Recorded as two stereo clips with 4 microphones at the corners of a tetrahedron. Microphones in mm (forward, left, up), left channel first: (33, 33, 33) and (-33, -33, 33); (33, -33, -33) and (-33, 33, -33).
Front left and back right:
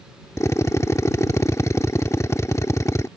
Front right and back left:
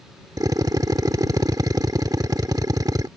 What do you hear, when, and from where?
0.4 s a drill: 95° left